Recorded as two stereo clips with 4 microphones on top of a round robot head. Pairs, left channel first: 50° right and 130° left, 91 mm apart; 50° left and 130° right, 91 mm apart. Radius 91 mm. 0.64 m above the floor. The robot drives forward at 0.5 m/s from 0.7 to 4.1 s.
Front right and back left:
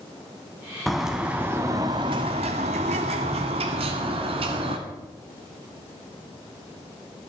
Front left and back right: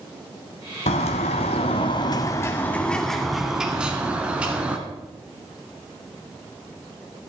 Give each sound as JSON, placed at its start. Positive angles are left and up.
{"t": 0.9, "sound": "a bird", "azimuth_deg": 40, "distance_m": 0.9}